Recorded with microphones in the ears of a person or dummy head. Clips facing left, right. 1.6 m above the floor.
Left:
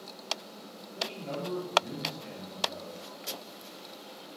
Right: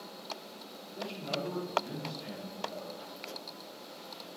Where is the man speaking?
Centre (ahead or behind), 3 m.